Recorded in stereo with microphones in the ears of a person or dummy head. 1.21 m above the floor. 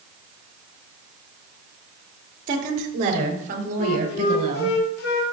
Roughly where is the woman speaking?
Right.